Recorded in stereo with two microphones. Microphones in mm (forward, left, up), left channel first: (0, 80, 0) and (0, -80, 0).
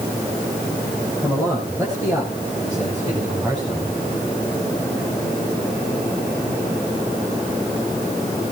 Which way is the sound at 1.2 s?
15° right (ahead or behind).